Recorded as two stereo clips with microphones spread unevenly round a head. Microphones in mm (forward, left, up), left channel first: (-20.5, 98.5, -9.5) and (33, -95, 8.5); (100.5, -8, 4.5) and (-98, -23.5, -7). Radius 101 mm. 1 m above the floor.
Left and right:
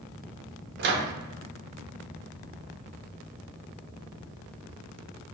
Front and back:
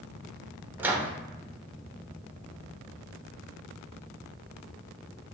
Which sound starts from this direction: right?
A microwave, at 0.8 s.